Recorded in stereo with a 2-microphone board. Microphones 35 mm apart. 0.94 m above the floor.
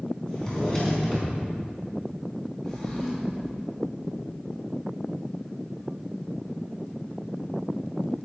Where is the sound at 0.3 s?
20° left (ahead or behind), 4.5 m.